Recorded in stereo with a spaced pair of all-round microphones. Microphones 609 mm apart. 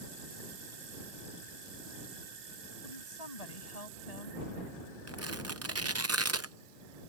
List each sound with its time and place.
2.8 s a woman speaking: 70° left (ahead or behind)
5.1 s tearing paper: 25° right (ahead or behind)